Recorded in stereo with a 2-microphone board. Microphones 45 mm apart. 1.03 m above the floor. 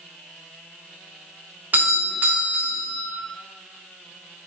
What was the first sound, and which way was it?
A doorbell, 45° right (ahead or behind).